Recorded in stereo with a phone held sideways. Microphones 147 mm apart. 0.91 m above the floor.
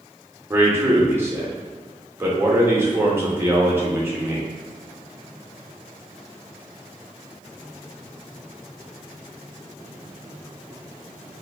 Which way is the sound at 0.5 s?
15° right (ahead or behind).